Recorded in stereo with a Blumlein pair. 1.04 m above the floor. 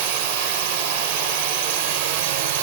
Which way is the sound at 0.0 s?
50° right.